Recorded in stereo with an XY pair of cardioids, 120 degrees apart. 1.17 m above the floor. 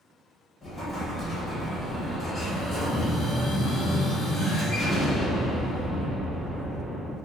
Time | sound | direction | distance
0.6 | an explosion | 25° left | 1.2 m